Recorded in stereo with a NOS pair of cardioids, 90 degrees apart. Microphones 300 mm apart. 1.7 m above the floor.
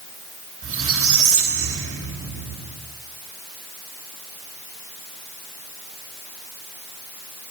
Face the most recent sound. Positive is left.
turn(degrees=-45)